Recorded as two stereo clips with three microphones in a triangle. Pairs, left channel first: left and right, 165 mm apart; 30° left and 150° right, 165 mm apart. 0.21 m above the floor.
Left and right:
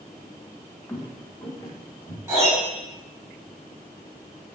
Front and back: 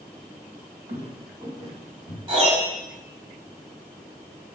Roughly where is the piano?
Behind right.